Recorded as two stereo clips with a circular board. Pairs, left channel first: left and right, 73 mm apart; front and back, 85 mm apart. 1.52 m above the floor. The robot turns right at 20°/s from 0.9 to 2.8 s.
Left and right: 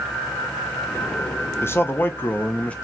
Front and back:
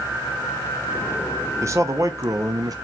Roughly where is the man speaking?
Behind left.